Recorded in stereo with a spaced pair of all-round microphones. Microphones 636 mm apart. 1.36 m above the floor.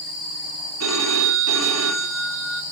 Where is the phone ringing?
25° right (ahead or behind), 1.4 m.